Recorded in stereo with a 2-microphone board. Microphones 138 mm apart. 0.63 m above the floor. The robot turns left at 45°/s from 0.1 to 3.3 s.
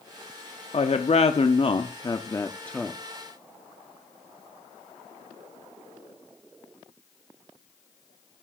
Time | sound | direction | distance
0.7 | a woman speaking | 100° left | 0.8 m